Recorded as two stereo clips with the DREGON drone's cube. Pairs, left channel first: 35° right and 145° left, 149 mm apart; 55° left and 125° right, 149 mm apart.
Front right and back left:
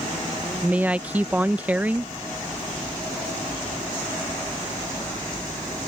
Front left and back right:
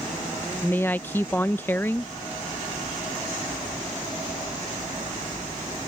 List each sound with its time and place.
0.6 s a woman speaking: 95° left